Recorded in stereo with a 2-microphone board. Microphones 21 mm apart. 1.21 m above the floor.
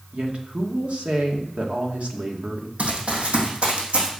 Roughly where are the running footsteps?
Right.